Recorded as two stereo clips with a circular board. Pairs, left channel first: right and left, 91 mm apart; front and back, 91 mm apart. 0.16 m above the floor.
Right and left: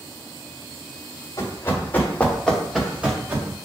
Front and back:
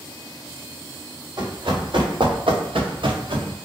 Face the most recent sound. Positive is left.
turn(degrees=155)